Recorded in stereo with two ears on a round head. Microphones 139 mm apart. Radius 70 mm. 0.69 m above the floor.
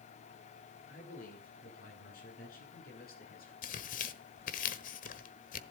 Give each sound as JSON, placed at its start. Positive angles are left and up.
{"t": 0.9, "sound": "a man speaking", "side_deg": 55, "distance_m": 9.5}
{"t": 3.6, "sound": "tearing paper", "side_deg": 55, "distance_m": 1.3}